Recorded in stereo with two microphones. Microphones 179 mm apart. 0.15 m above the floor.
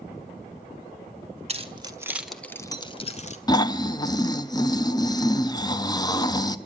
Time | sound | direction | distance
1.5 | keys jangling | 35° right (ahead or behind) | 1.3 m
3.5 | snoring | 20° left (ahead or behind) | 0.5 m